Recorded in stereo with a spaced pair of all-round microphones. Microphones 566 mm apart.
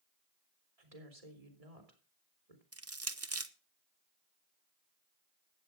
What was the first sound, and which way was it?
A woman speaking, 85° right.